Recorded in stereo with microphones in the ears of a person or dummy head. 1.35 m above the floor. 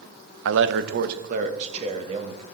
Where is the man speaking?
75° right (ahead or behind), 0.7 m; by 2.5 s 30° right (ahead or behind), 2 m.